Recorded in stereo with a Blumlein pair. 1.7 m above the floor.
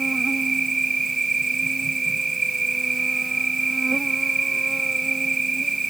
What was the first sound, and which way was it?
An insect, 10° right.